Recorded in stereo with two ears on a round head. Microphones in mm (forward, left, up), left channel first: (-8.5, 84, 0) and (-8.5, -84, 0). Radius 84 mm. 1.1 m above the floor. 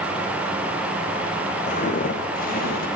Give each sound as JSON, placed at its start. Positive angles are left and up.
{"t": 1.7, "sound": "footsteps", "side_deg": 45, "distance_m": 4.5}